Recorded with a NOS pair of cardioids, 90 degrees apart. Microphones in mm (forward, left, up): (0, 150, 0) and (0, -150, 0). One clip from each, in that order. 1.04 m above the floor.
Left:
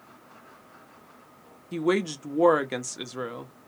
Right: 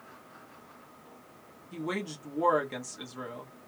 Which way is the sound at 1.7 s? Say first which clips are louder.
Left 10 dB; 50° left.